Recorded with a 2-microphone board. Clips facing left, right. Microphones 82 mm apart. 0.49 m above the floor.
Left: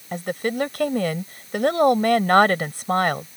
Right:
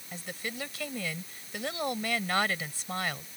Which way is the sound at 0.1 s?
55° left (ahead or behind).